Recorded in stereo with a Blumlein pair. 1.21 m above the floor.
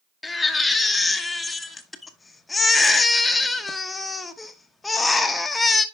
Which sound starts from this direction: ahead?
A baby crying, at 0.2 s.